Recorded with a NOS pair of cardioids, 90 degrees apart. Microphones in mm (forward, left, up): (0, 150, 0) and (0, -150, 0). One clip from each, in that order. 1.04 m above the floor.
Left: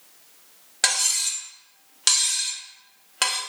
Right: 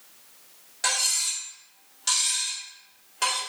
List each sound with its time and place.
0.8 s cutlery clinking: 65° left, 1.2 m